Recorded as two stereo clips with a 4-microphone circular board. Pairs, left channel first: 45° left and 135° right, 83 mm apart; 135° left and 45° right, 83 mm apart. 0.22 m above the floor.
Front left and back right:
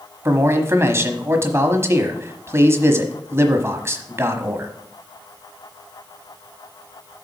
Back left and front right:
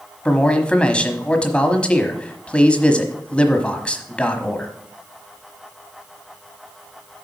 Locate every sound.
0.2 s a man speaking: 160° right, 1.1 m